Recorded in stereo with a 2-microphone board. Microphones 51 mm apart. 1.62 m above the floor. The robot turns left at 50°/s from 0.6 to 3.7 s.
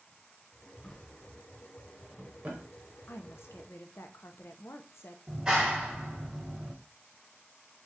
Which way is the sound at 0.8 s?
15° left (ahead or behind).